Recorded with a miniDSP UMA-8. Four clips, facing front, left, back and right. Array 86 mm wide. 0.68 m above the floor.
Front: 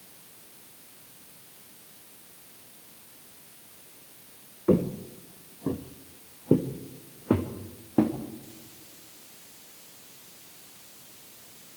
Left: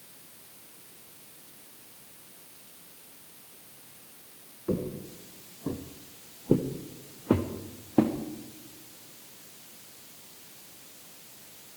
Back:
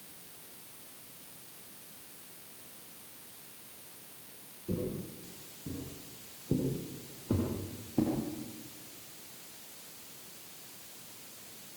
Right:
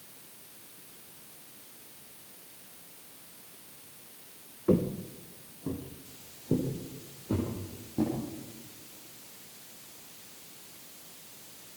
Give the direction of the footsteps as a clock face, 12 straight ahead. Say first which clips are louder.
Right 5 dB, front 12 dB; 12 o'clock.